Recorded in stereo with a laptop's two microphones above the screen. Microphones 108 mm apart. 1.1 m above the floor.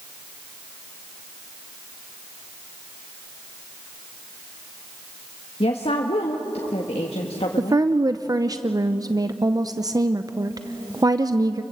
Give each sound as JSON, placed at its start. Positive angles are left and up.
{"t": 5.6, "sound": "a woman speaking", "side_deg": 70, "distance_m": 1.6}
{"t": 7.6, "sound": "a woman speaking", "side_deg": -35, "distance_m": 0.7}